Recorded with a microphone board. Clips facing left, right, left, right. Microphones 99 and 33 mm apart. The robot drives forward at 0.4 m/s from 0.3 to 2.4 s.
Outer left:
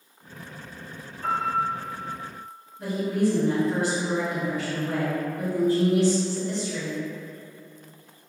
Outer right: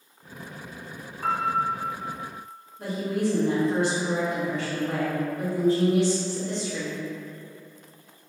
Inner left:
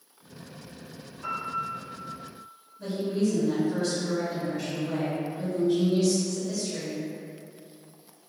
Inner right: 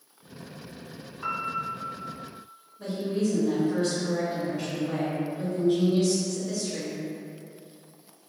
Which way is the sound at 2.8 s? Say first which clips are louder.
Outer left 2 dB, inner left 1 dB; 30° right (ahead or behind).